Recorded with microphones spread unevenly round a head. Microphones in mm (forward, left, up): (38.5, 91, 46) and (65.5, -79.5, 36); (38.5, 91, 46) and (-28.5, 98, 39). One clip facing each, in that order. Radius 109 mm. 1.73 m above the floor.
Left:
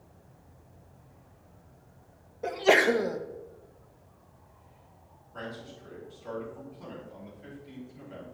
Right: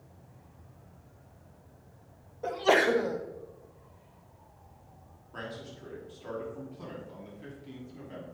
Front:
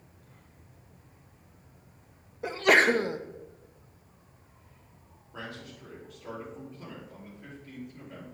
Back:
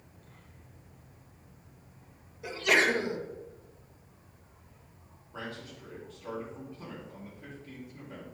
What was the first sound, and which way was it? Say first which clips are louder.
A sneeze: left 2 dB, front 4 dB; 30° left.